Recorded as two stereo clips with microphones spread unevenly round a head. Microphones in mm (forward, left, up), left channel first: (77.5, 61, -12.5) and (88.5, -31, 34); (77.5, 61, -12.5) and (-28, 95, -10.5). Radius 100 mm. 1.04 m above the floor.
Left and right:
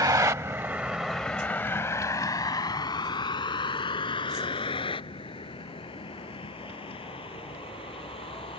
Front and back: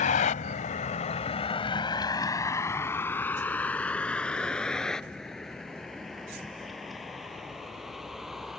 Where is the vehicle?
40° right; by 8.6 s 75° left.